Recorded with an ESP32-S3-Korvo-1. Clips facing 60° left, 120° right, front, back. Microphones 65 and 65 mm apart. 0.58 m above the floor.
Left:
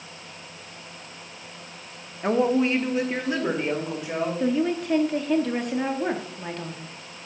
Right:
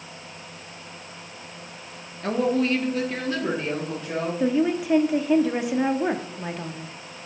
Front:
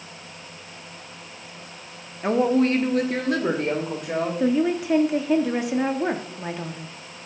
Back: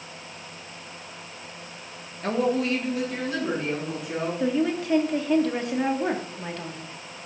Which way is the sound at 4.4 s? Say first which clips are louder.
Right 3 dB, front 3 dB; 55° right.